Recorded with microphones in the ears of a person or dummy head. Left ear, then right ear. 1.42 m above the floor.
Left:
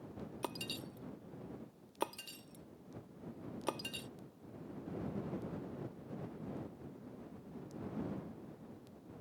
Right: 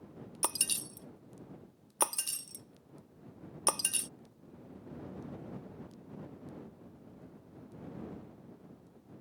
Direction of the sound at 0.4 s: 40° right (ahead or behind).